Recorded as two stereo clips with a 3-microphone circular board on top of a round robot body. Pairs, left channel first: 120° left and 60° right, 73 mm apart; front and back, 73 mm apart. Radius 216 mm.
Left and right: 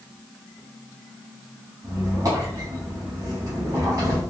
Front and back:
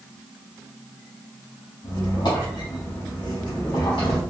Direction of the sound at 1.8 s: 20° right.